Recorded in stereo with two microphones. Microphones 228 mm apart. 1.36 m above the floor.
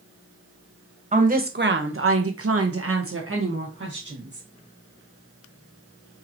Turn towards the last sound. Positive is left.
turn(degrees=-50)  # may be behind; listen again after turning